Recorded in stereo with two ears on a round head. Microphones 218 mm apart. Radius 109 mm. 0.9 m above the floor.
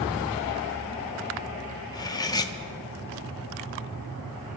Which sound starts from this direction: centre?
Cutlery clinking, at 1.9 s.